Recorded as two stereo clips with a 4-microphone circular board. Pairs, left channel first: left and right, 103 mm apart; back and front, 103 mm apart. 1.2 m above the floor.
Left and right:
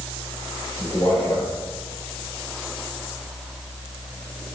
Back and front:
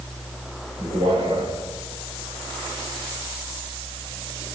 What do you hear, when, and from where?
0.8 s a man speaking: 30° left, 4.5 m